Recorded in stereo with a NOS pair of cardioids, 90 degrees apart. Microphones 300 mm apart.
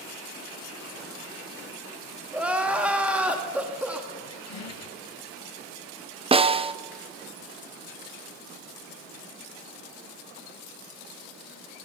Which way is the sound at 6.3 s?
20° right.